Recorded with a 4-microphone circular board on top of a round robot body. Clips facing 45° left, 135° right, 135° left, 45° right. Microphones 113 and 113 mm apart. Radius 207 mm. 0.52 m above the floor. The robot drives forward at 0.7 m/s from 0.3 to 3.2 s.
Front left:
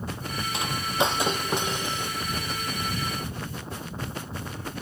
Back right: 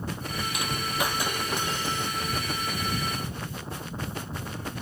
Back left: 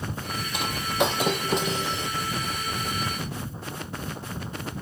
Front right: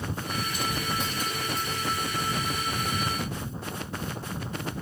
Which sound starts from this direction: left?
Breaking glass, at 0.5 s.